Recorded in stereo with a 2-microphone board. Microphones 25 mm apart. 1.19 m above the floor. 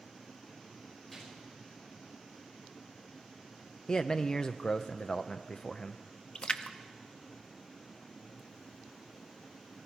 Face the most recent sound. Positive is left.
turn(degrees=40)  # may be behind; listen again after turning